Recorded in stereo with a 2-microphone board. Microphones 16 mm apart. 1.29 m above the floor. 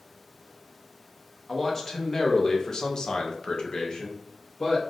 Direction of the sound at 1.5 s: 15° left (ahead or behind).